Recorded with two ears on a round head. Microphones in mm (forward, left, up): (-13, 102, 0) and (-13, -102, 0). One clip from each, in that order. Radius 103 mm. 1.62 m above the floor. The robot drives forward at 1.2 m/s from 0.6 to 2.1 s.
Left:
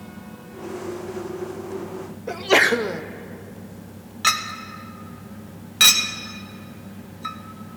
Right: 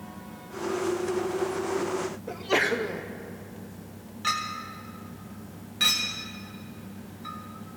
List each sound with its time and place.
2.3 s a sneeze: 20° left (ahead or behind), 0.6 m
4.2 s a clink: 35° left (ahead or behind), 0.8 m